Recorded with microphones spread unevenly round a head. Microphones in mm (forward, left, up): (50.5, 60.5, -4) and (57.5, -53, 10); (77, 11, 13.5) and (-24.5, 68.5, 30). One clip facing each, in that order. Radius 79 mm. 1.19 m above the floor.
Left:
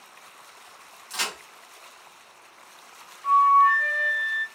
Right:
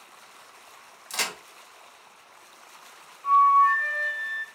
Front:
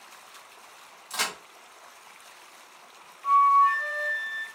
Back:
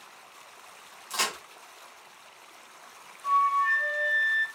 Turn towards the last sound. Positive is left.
turn(degrees=40)